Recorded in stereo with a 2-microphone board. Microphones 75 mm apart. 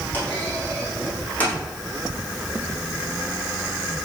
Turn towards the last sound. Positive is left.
turn(degrees=20)  # may be behind; listen again after turning